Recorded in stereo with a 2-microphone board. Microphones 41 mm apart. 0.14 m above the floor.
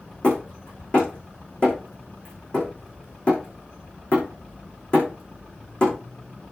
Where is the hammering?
30° left (ahead or behind), 7.5 m.